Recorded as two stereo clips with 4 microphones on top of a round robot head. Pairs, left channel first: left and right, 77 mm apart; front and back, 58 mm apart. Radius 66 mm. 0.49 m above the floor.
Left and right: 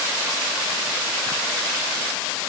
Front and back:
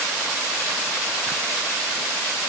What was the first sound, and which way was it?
Only background noise.